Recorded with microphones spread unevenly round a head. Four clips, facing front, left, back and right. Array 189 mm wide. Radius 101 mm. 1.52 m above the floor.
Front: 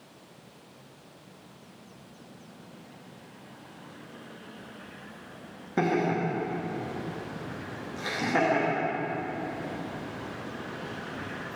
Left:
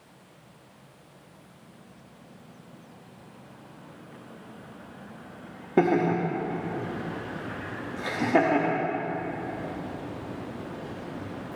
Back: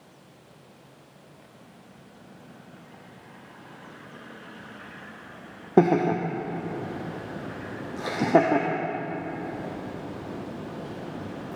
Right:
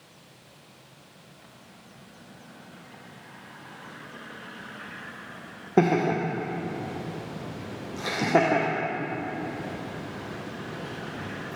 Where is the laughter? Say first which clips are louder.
Even, back 6 dB; 170° right, 0.9 m.